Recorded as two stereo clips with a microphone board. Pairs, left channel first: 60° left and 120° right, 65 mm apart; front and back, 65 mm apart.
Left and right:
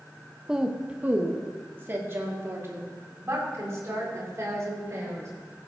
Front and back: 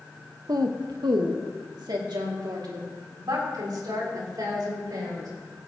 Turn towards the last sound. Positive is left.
turn(degrees=-165)